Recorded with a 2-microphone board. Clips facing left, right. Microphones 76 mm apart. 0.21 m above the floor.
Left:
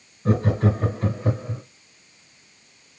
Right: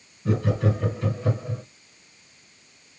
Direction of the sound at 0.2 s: 40° left (ahead or behind).